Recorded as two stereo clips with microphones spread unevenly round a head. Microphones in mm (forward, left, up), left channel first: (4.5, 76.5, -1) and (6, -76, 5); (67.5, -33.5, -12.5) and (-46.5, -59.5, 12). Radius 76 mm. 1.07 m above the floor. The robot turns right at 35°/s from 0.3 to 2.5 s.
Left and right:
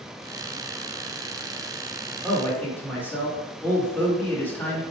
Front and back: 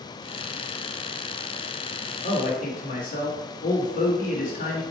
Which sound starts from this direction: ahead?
A man speaking, at 2.2 s.